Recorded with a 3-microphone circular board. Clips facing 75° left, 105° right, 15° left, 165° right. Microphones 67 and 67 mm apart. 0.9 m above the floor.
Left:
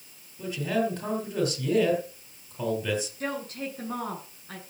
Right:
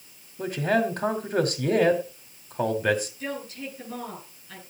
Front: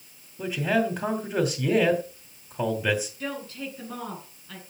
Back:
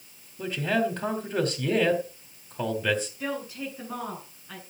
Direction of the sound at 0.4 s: 70° right.